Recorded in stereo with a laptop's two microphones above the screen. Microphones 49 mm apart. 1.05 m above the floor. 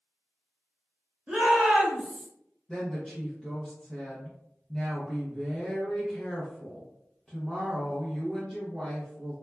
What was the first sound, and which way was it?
A shout, 25° right (ahead or behind).